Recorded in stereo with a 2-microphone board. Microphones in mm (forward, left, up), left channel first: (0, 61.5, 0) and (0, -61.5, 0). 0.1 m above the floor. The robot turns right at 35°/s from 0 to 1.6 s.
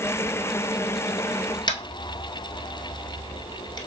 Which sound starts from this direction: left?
Tapping, at 1.7 s.